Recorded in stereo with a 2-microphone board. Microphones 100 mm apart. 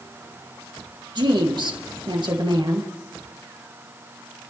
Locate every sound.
1.1 s a woman speaking: 50° right (ahead or behind), 3 m